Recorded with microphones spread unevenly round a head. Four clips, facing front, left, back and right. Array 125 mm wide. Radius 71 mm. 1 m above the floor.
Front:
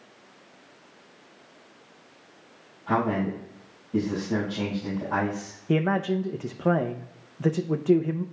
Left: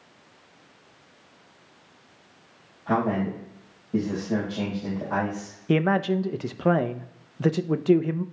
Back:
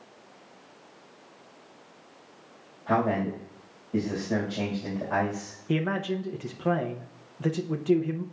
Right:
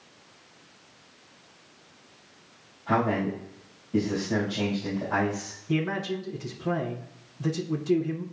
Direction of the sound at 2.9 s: 145° left.